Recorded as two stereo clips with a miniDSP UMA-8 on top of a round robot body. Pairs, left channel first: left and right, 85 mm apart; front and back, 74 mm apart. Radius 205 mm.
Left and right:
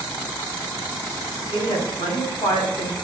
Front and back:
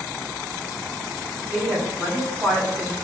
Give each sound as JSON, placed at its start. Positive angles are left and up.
{"t": 1.5, "sound": "a woman speaking", "azimuth_deg": 110, "distance_m": 3.0}